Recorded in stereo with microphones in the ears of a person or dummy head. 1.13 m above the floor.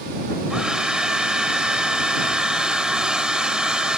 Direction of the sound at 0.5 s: 5° right (ahead or behind).